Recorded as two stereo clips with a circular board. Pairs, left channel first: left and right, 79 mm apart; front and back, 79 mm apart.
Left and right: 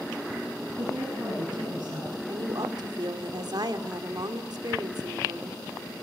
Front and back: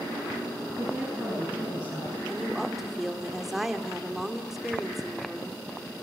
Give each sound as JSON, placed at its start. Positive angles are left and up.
{"t": 0.8, "sound": "a woman speaking", "azimuth_deg": -125, "distance_m": 10.0}
{"t": 2.3, "sound": "a woman speaking", "azimuth_deg": -95, "distance_m": 2.0}